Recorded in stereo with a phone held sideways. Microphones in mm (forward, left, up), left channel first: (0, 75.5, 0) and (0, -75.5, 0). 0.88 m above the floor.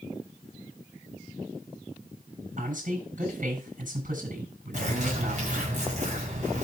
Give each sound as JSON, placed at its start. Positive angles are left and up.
{"t": 2.6, "sound": "a man speaking", "side_deg": -60, "distance_m": 7.5}
{"t": 4.7, "sound": "a bird", "side_deg": -55, "distance_m": 5.0}